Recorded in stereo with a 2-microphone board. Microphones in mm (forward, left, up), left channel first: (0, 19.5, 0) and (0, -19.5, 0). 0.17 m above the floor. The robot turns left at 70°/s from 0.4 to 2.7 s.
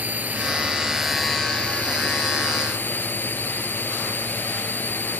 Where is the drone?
130° right; by 5.2 s 70° left.